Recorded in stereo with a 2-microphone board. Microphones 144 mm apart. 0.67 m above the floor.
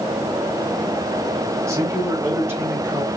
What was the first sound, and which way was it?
A man speaking, 20° right (ahead or behind).